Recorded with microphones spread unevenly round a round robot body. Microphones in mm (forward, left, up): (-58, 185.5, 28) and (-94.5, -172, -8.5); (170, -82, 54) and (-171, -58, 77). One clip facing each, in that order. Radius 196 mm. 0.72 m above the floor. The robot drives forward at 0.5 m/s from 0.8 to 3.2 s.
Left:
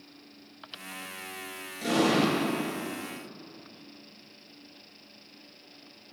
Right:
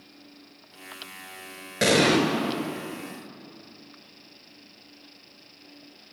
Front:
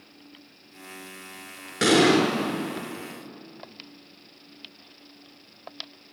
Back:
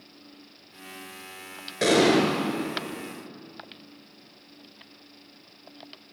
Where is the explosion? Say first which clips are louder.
Right 4 dB, front 1 dB; 65° right, 4 m; by 2.2 s 70° right, 3.5 m.